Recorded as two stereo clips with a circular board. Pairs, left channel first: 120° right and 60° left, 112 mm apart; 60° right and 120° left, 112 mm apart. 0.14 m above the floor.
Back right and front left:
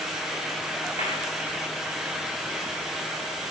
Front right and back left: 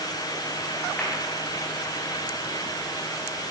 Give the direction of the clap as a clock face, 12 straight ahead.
5 o'clock.